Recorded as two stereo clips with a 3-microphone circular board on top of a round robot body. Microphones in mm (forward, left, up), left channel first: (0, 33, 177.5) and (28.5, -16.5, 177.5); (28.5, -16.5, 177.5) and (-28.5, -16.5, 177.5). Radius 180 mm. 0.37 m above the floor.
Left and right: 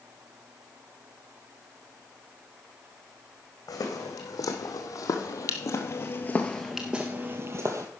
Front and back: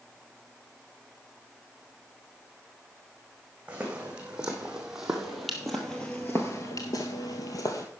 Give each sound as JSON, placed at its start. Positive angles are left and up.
{"t": 3.7, "sound": "footsteps", "azimuth_deg": 110, "distance_m": 2.0}